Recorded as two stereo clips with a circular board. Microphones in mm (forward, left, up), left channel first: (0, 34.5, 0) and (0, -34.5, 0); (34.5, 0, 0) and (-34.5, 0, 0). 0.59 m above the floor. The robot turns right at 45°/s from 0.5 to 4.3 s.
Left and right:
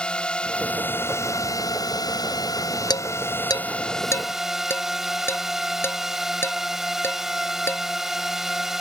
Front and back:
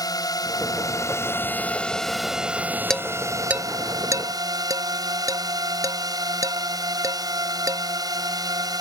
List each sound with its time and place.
0.0 s a drone: 15° left; by 8.8 s 175° right
2.9 s dishes clattering: 85° left; by 7.8 s 145° left